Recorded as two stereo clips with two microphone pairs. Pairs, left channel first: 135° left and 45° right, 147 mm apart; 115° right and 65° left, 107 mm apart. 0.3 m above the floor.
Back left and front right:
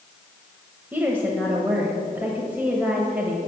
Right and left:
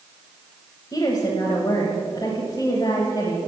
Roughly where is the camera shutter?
No camera shutter in this recording.